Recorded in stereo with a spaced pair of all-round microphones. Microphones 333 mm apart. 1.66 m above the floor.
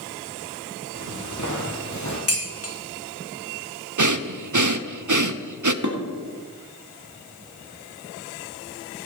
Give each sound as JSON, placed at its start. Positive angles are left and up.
{"t": 0.9, "sound": "footsteps", "side_deg": 55, "distance_m": 3.0}
{"t": 2.3, "sound": "dishes clattering", "side_deg": 45, "distance_m": 2.0}
{"t": 4.0, "sound": "breathing", "side_deg": -60, "distance_m": 0.6}
{"t": 5.8, "sound": "dishes clattering", "side_deg": -55, "distance_m": 2.0}